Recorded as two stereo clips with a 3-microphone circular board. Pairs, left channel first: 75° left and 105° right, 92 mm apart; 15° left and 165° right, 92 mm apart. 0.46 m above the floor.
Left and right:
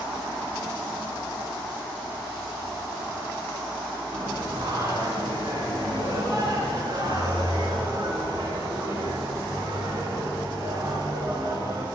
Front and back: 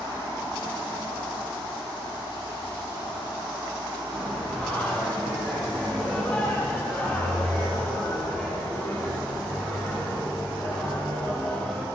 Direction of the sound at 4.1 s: 65° right.